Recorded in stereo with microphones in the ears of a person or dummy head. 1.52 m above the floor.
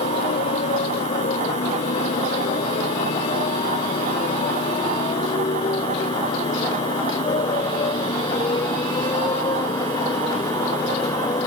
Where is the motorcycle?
35° left (ahead or behind); by 11.5 s 15° left (ahead or behind).